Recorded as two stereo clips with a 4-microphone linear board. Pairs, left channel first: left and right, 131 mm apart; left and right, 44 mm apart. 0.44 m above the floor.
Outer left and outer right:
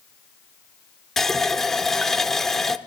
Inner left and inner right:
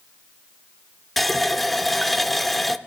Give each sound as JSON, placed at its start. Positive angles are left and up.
{"t": 1.2, "sound": "a running tap", "side_deg": 5, "distance_m": 0.5}